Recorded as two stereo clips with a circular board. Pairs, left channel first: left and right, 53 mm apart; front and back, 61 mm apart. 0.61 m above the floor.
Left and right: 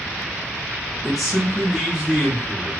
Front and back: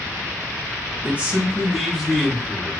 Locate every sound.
1.0 s a man speaking: 175° left, 1.0 m; by 2.8 s 55° right, 1.1 m